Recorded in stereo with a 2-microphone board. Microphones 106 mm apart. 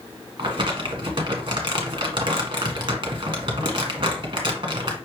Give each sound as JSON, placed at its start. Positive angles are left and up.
{"t": 0.4, "sound": "crumpling", "side_deg": -45, "distance_m": 1.3}